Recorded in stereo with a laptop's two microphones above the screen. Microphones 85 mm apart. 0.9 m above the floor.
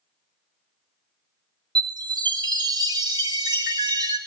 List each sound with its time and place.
1.8 s a chime: 50° right (ahead or behind), 1.4 m